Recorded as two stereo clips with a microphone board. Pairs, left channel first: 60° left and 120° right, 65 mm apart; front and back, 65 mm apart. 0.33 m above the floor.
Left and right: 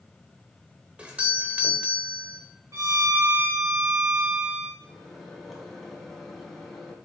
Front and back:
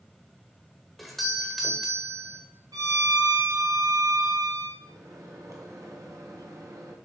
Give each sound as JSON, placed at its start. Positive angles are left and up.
{"t": 1.0, "sound": "a doorbell", "azimuth_deg": -90, "distance_m": 1.3}
{"t": 2.7, "sound": "a violin", "azimuth_deg": -160, "distance_m": 3.5}
{"t": 4.8, "sound": "a microwave", "azimuth_deg": 150, "distance_m": 2.5}